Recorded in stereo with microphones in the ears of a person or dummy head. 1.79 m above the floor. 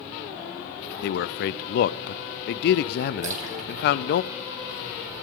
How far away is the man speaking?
About 0.6 m.